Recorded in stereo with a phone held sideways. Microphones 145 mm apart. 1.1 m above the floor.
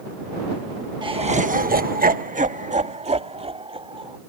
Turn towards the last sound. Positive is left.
turn(degrees=-40)  # may be behind; listen again after turning